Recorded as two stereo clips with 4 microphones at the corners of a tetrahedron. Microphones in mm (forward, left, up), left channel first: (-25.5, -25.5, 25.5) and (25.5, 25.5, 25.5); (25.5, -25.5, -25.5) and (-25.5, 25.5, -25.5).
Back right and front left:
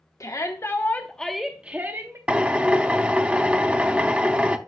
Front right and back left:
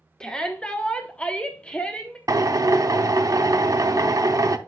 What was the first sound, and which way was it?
A shout, 120° right.